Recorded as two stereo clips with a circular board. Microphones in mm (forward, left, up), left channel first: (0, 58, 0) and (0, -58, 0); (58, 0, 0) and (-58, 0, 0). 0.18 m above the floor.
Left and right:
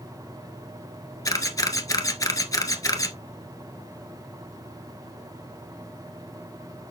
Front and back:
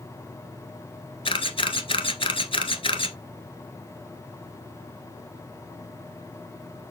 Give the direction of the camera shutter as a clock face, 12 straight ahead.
11 o'clock.